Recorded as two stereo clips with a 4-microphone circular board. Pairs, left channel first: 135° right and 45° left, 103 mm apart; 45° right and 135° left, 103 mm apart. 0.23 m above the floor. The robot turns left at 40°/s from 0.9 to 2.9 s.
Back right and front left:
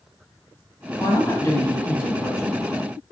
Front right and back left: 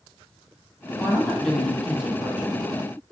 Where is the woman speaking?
105° right, 1.2 m; by 2.6 s 170° right, 1.2 m.